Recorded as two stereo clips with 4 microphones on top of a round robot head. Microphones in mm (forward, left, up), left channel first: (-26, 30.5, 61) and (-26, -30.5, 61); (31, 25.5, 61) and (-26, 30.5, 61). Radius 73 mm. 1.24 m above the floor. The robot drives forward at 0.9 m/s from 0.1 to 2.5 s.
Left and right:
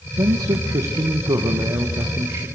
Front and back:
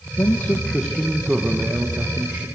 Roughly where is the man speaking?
Ahead right.